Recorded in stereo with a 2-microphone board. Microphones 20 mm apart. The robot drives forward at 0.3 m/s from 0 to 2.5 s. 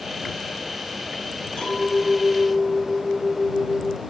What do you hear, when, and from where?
1.6 s a clink: 55° left (ahead or behind), 1.1 m; by 4.0 s 50° left (ahead or behind), 1.1 m